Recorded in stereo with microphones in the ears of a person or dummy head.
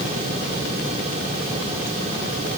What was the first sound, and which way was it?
Only background noise.